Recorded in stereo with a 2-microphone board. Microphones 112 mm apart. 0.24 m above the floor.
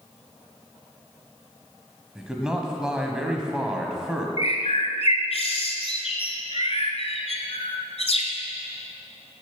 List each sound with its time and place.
2.1 s a man speaking: 5° right (ahead or behind), 1.3 m
4.4 s a bird: 65° left (ahead or behind), 1.1 m